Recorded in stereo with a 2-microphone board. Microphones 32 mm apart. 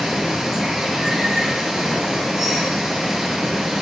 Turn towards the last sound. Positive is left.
turn(degrees=-20)  # may be behind; listen again after turning